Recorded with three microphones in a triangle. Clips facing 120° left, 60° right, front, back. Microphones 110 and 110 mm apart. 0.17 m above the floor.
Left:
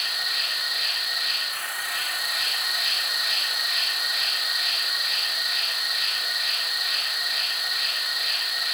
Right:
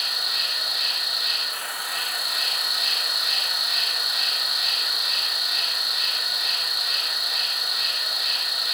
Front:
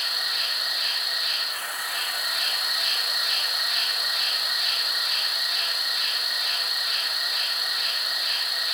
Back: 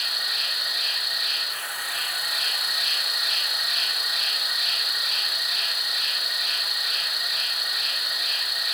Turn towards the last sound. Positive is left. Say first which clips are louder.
# even, front 1 dB
turn(degrees=-45)